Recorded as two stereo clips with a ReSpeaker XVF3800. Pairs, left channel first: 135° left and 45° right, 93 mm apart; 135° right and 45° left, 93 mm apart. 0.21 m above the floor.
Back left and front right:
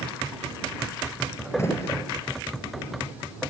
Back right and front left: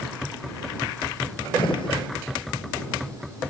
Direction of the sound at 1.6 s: 165° right.